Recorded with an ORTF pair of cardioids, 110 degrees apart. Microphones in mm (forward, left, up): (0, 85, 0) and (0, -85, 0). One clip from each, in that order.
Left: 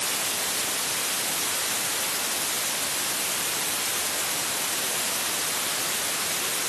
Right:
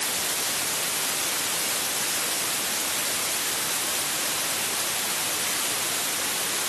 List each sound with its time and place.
Only background noise.